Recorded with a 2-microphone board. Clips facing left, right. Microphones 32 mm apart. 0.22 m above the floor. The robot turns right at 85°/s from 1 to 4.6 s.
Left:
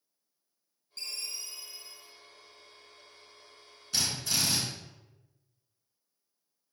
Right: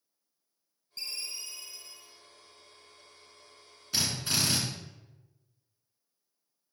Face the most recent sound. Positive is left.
turn(degrees=-115)